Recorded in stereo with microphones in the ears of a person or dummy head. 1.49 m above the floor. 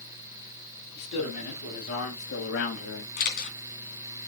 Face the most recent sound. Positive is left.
turn(degrees=50)  # may be behind; listen again after turning